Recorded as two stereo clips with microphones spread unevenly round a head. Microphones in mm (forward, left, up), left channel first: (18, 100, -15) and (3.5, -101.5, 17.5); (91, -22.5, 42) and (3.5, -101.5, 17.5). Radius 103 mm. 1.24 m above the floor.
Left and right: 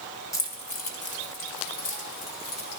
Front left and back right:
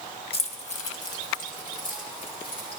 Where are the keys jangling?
10° left, 1.4 m; by 2.8 s 80° left, 3.5 m.